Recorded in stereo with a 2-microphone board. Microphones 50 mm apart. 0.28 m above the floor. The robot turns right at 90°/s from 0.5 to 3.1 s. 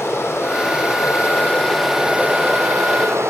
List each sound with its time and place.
0.0 s running water: 55° left, 9.5 m; by 3.3 s 70° right, 9.5 m